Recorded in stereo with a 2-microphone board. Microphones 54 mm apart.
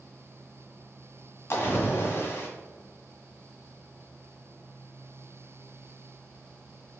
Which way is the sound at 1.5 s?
50° left (ahead or behind).